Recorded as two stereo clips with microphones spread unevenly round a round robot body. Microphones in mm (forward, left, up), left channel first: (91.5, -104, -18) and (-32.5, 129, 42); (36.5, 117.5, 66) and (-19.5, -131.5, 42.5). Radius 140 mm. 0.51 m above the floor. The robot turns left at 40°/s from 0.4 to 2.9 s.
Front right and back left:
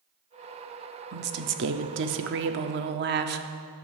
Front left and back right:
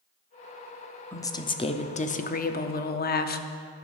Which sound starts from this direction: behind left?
A woman speaking, at 1.1 s.